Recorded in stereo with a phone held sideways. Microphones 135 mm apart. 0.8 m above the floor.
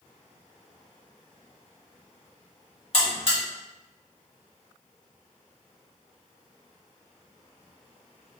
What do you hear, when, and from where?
2.9 s a buzzer: 45° left (ahead or behind), 1.3 m